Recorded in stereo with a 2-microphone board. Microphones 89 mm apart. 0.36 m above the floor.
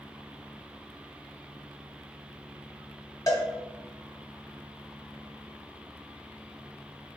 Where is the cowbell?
40° left (ahead or behind), 0.7 m.